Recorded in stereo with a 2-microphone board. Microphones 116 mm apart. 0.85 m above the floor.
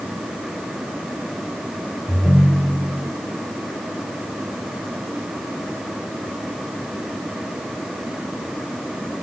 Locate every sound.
2.1 s a ringtone: centre (ahead or behind), 1.4 m